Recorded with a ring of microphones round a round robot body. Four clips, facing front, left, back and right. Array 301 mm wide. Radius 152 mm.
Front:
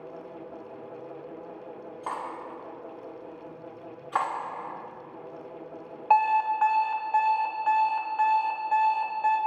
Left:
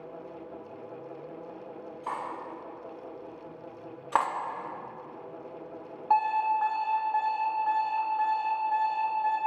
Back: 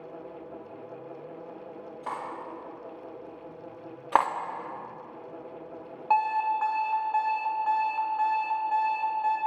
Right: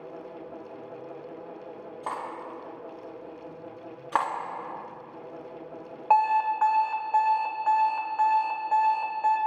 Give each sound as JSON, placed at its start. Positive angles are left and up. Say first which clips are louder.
{"t": 2.0, "sound": "cutlery clinking", "louder": "right 1 dB, front 1 dB", "azimuth_deg": -115, "distance_m": 2.0}
{"t": 4.1, "sound": "cutlery clinking", "louder": "even, back 4 dB", "azimuth_deg": -175, "distance_m": 0.7}
{"t": 6.1, "sound": "an alarm clock", "louder": "right 3 dB, front 3 dB", "azimuth_deg": -80, "distance_m": 1.2}